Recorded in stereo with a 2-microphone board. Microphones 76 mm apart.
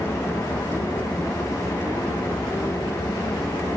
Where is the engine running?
50° left (ahead or behind), 1.8 m.